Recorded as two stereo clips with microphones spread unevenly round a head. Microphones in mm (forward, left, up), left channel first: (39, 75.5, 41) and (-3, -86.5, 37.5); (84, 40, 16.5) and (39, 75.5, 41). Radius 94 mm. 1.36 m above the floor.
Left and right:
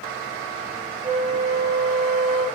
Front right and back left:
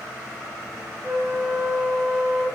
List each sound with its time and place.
1.0 s a flute: 170° right, 1.6 m